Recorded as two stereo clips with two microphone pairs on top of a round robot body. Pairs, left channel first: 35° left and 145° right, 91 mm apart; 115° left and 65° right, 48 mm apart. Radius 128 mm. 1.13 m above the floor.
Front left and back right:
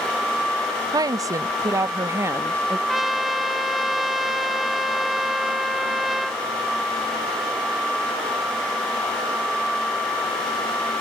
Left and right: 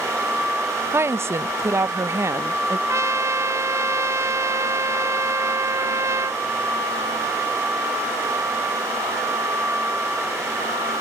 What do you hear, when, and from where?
0.9 s a woman speaking: 95° right; by 2.8 s 80° right
2.9 s a trumpet: 55° right